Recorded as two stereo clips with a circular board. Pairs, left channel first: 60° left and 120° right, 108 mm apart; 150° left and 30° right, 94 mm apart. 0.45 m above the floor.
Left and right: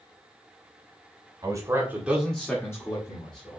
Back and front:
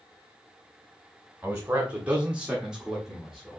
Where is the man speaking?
90° right, 1.7 m; by 3.6 s 60° left, 2.0 m.